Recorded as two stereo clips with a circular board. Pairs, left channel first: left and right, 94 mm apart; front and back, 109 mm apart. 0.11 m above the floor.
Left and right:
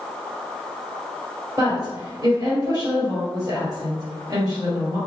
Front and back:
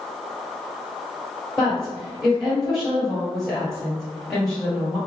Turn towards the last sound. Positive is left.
turn(degrees=-85)